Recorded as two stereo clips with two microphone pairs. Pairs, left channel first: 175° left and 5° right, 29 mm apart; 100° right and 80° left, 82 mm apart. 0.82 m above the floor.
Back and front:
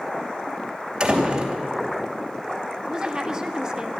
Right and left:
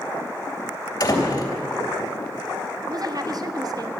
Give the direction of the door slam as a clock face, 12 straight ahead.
2 o'clock.